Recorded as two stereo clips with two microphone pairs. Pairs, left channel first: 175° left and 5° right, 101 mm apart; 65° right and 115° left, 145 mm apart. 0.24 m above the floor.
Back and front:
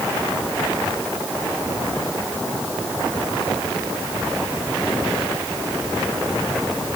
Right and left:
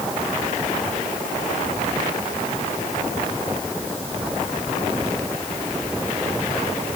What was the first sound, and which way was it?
Only background noise.